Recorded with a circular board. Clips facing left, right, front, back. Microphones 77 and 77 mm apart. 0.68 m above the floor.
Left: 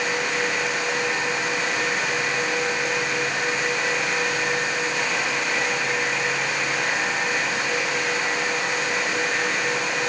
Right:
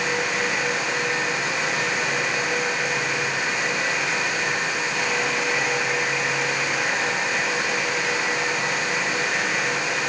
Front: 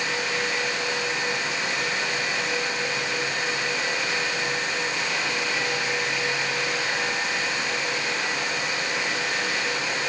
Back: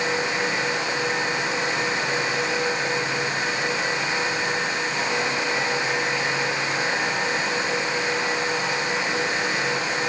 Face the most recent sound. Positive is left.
No sound to turn to.